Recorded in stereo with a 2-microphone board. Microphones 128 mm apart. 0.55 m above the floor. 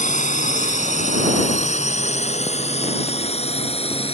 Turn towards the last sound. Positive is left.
turn(degrees=50)  # may be behind; listen again after turning